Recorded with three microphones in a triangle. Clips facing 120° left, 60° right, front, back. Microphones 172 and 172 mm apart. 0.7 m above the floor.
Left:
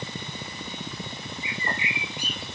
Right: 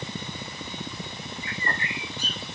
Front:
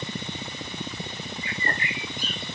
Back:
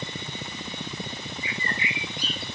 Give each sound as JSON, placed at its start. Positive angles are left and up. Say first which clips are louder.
{"t": 1.4, "sound": "a bird", "louder": "left 1 dB, front 1 dB", "azimuth_deg": 45, "distance_m": 0.9}